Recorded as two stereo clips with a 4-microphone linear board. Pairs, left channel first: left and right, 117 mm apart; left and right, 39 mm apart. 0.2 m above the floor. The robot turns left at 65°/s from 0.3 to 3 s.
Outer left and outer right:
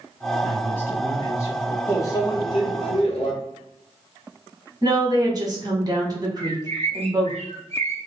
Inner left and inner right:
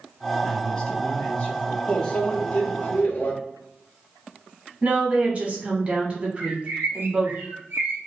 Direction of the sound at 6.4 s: 65° right (ahead or behind).